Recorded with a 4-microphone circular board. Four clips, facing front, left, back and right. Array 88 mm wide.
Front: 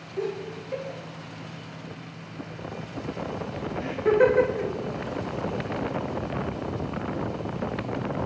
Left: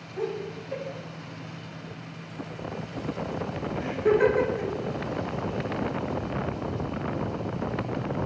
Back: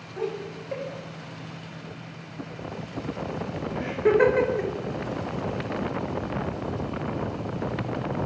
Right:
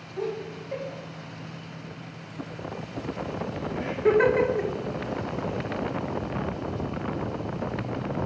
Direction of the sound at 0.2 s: 175° right.